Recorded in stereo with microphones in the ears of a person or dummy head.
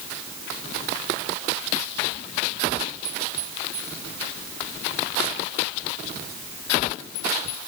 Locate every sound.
Only background noise.